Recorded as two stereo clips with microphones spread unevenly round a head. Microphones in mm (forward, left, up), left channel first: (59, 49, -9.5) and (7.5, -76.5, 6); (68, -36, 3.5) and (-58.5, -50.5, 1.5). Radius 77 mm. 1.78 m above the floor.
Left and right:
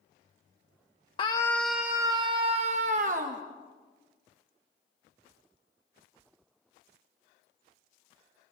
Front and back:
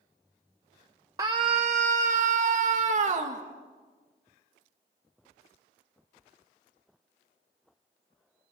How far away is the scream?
About 0.9 m.